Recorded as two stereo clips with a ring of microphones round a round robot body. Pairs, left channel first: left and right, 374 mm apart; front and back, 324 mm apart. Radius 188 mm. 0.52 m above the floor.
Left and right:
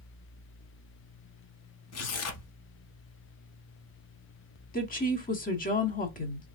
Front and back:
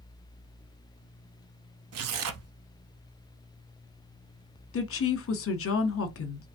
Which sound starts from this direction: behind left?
Tearing paper, at 1.9 s.